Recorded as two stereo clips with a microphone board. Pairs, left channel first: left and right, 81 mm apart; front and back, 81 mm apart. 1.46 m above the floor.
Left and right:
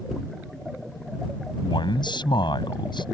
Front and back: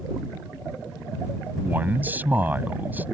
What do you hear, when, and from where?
1.6 s a man speaking: 110° left